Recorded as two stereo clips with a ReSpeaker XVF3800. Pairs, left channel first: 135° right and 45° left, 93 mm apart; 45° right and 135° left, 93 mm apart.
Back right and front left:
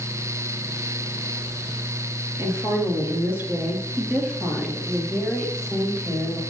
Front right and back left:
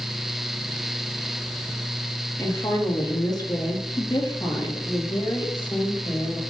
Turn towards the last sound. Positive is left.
turn(degrees=-50)